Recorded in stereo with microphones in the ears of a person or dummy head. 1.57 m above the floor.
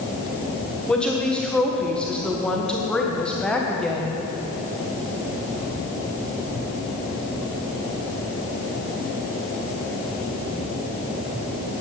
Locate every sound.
0.9 s a woman speaking: 5° left (ahead or behind), 1.5 m